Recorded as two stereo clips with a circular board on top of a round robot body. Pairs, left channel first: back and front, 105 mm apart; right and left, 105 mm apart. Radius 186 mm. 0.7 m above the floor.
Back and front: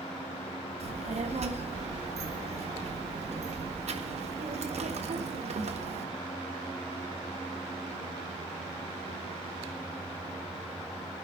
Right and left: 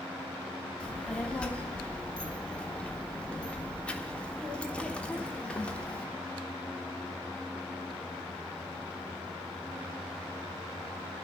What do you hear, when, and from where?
0.8 s a child speaking: 10° right, 1.5 m